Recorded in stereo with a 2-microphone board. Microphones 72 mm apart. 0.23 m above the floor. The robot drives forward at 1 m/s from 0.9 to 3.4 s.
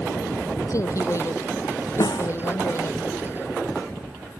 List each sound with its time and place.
0.7 s a woman speaking: 45° left (ahead or behind); by 3.0 s 40° left (ahead or behind)
2.0 s a snare drum: 80° left; by 2.3 s 85° left